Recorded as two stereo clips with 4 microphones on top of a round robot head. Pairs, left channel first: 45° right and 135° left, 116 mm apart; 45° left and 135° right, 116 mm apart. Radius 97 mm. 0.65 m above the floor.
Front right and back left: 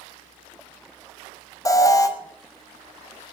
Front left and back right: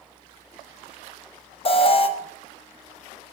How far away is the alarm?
About 1.4 m.